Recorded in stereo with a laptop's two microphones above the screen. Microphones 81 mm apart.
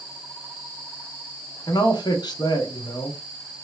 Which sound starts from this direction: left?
A man speaking, at 1.7 s.